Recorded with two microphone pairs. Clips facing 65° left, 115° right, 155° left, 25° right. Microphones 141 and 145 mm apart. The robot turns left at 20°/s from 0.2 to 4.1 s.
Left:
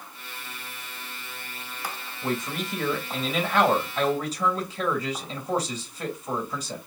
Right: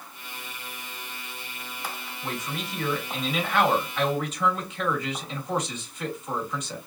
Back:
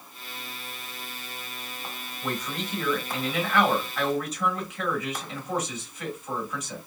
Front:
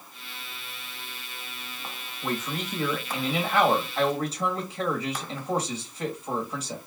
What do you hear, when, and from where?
2.2 s a man speaking: 60° left, 1.5 m; by 6.8 s 20° left, 1.5 m